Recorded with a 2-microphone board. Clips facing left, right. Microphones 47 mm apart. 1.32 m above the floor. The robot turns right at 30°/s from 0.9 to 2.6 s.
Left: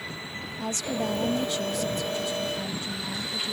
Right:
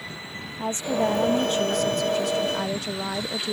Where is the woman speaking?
155° right; by 3.5 s 100° right.